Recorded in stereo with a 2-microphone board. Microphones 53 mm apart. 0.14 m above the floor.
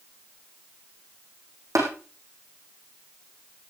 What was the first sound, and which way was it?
Tapping, 80° right.